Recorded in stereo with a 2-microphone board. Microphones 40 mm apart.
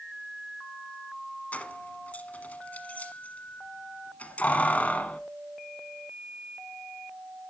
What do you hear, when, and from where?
1.5 s keys jangling: 40° left (ahead or behind), 1.2 m